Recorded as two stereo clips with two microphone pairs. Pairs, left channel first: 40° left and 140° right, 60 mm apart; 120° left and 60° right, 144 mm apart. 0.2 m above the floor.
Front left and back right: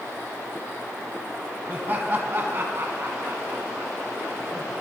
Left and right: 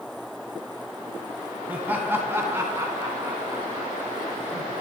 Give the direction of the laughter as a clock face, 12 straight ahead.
4 o'clock.